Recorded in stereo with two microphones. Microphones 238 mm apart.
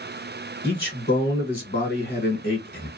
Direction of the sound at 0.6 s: 40° left (ahead or behind).